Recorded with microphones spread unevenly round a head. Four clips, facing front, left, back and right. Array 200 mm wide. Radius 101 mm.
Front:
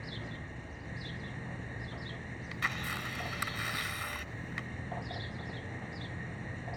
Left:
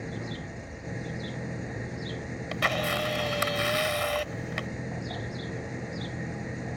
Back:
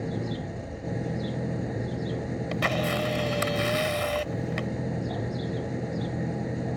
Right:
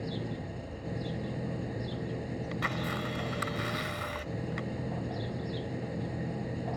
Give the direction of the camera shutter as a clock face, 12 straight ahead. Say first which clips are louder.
Left 8 dB, back 11 dB; 7 o'clock.